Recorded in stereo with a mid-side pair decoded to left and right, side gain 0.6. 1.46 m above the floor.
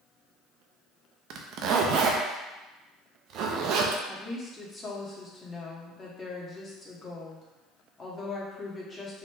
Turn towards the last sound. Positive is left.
turn(degrees=20)